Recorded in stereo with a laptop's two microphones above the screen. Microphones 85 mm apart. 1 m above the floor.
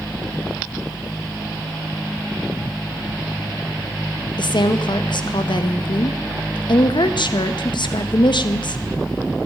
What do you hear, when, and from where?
4.4 s a woman speaking: 70° left (ahead or behind), 0.7 m